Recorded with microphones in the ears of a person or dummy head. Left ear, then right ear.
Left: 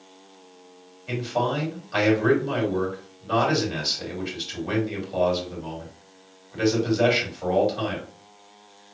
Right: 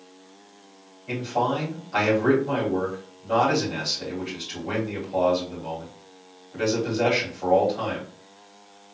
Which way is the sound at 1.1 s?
35° left (ahead or behind).